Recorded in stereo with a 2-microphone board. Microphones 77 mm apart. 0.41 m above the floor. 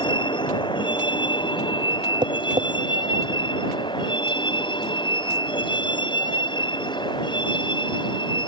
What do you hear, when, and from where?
0.0 s a vehicle: 80° left; by 8.5 s 75° left (ahead or behind)
2.2 s tapping: 85° right